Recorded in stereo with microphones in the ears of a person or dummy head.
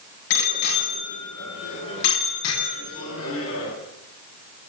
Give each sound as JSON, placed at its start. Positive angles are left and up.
{"t": 0.3, "sound": "a bicycle bell", "side_deg": 60, "distance_m": 9.5}